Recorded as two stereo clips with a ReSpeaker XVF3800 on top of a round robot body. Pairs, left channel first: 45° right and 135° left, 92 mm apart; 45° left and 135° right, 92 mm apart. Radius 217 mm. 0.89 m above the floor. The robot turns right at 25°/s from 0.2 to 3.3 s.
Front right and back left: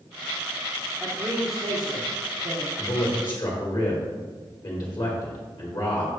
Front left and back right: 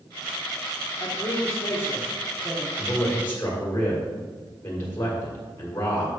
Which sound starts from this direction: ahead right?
A man speaking, at 2.8 s.